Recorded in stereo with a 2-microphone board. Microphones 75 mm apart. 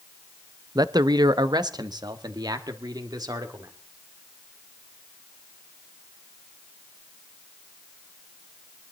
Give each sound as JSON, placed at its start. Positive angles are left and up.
{"t": 0.8, "sound": "a man speaking", "side_deg": -60, "distance_m": 0.6}